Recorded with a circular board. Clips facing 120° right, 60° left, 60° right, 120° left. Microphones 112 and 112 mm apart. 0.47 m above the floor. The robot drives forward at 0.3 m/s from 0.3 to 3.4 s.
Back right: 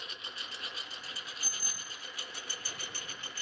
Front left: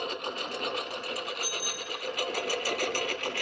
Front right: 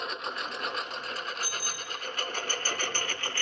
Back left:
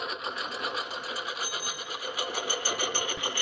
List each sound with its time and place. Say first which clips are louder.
0.0 s a lawn mower: front left 14 dB, back left 1 dB; 35° left; by 3.4 s 45° left
1.4 s a bicycle bell: front left 11 dB, back left 1 dB; 175° right